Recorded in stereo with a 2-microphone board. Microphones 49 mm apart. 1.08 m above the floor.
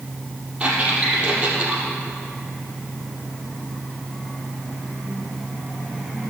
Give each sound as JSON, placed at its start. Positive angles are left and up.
{"t": 0.6, "sound": "a squeak", "side_deg": -20, "distance_m": 4.5}